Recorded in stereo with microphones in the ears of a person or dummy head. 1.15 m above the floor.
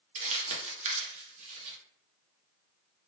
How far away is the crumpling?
About 1.2 m.